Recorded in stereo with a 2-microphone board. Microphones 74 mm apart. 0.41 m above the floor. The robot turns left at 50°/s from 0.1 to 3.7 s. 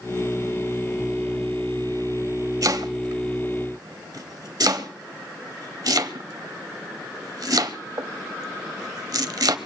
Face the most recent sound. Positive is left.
turn(degrees=-60)  # may be behind; listen again after turning